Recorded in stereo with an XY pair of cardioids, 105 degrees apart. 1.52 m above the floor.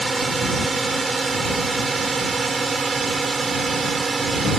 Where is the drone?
30° right; by 4.6 s 35° right.